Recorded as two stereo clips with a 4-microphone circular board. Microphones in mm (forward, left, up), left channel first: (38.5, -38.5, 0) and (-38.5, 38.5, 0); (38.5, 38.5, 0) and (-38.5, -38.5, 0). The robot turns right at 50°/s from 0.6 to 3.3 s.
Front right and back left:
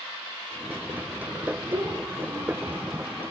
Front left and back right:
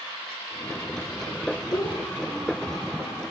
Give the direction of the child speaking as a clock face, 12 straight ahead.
9 o'clock.